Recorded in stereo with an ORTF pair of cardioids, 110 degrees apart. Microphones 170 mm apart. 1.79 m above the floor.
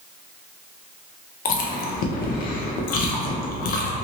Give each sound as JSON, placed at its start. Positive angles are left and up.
{"t": 1.4, "sound": "chewing", "azimuth_deg": 60, "distance_m": 0.6}